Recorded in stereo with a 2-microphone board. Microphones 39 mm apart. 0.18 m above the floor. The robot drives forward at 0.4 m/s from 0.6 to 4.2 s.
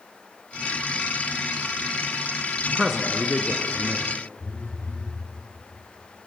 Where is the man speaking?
5° right (ahead or behind), 1.7 m.